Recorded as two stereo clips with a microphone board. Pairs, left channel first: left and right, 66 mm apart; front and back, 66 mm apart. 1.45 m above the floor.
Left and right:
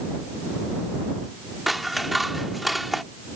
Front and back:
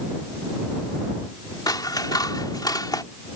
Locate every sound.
1.7 s scissors: straight ahead